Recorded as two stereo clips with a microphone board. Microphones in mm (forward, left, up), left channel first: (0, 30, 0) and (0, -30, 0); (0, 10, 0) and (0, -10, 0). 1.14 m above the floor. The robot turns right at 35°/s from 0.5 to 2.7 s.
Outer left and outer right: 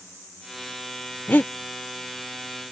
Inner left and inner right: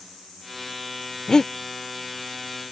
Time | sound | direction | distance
1.3 | breathing | 35° left (ahead or behind) | ?